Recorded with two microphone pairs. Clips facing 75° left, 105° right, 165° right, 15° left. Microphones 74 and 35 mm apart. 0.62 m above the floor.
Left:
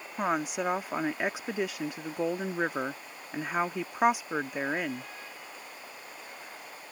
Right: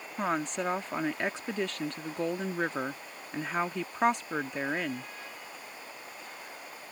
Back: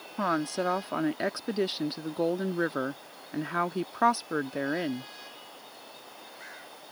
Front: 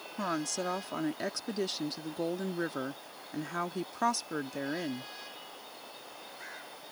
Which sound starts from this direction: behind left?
A woman speaking, at 0.2 s.